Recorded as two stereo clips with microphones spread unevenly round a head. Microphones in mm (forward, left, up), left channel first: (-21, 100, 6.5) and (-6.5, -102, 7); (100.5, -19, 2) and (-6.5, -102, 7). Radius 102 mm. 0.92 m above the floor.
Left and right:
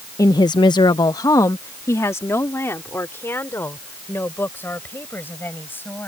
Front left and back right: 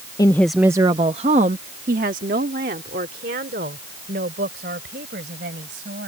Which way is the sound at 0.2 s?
35° left.